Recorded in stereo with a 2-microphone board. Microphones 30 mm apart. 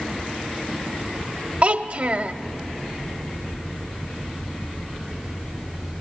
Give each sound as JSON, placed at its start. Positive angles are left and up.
{"t": 1.6, "sound": "a child speaking", "side_deg": -35, "distance_m": 0.8}